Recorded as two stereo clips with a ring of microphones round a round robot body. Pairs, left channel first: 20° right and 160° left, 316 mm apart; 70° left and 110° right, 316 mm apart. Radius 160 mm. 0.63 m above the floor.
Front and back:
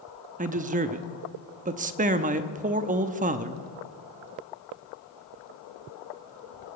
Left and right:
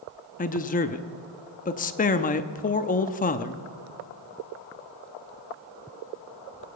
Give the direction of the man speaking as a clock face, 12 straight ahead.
8 o'clock.